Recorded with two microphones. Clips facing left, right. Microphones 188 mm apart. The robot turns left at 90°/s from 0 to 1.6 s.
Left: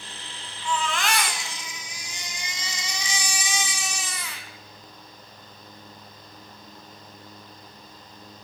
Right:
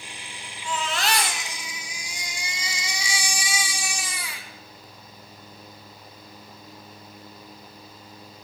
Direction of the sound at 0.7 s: 80° right.